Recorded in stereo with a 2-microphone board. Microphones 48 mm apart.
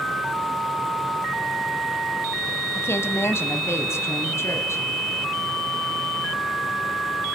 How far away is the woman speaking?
About 2 m.